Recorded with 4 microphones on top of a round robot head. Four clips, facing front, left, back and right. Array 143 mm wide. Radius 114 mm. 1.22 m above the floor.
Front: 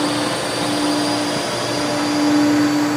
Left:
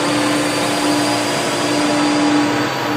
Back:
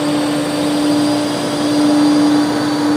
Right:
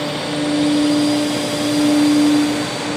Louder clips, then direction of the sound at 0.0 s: Left 5 dB, back 5 dB; 85° left.